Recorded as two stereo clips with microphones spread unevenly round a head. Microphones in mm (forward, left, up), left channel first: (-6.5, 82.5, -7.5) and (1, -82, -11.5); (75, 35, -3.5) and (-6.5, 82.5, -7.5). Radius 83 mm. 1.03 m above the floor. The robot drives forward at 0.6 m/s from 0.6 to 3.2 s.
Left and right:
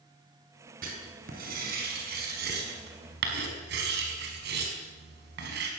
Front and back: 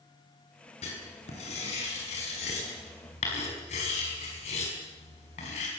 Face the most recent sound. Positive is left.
turn(degrees=-60)